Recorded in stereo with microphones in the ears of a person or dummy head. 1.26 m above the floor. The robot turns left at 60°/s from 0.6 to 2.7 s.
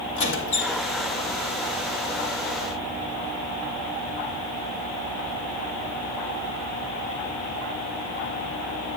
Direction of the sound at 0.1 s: 75° left (ahead or behind).